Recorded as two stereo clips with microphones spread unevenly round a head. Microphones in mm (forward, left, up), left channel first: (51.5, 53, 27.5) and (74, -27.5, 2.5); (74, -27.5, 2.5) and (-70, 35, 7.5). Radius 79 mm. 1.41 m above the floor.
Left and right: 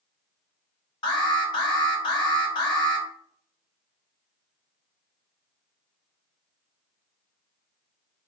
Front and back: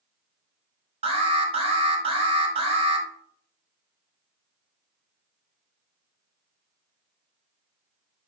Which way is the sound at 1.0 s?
105° left.